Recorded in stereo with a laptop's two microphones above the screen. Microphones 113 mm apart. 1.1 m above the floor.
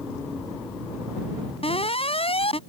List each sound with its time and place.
1.6 s an alarm: 60° left (ahead or behind)